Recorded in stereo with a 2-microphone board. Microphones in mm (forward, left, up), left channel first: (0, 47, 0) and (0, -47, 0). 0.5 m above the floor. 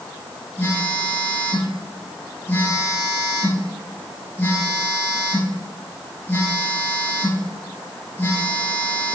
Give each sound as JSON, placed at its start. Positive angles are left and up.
{"t": 0.6, "sound": "a phone buzzing", "side_deg": 25, "distance_m": 6.0}